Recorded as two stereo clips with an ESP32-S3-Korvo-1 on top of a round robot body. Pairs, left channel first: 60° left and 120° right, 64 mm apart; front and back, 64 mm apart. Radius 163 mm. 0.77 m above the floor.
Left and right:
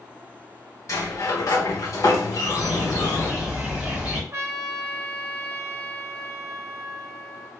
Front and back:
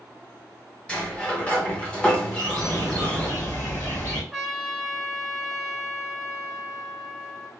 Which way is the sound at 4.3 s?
90° right.